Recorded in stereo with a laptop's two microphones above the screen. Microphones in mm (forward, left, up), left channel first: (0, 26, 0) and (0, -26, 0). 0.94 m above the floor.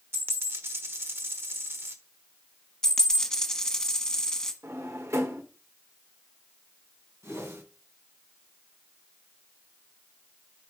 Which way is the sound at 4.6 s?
70° right (ahead or behind).